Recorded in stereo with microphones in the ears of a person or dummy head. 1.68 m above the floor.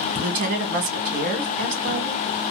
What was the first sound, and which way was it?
A woman speaking, 50° right (ahead or behind).